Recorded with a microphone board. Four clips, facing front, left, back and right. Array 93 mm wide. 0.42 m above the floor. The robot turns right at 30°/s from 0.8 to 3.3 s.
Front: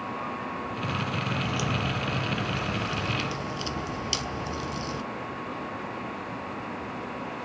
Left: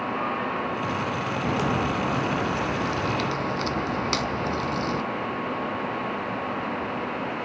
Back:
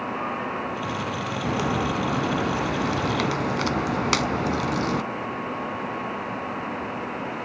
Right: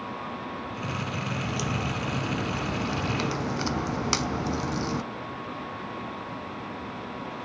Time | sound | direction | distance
1.4 | a crack | 135° left | 0.6 m